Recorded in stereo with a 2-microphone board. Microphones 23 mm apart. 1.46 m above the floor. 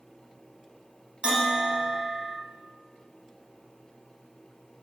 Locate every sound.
1.2 s a bell: 40° right (ahead or behind), 0.8 m